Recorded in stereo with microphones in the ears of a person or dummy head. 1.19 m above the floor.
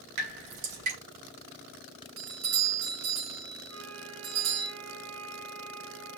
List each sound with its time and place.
0.2 s dripping: 65° right (ahead or behind), 2 m
2.2 s a doorbell: 75° right (ahead or behind), 3 m
3.7 s a flute: 75° right (ahead or behind), 1.7 m